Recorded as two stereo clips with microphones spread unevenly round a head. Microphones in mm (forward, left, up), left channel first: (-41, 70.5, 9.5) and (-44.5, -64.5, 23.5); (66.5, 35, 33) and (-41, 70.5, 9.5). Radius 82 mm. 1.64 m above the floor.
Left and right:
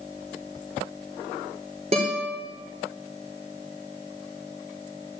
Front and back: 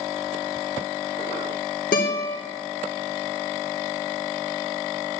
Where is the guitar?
35° right, 4 m.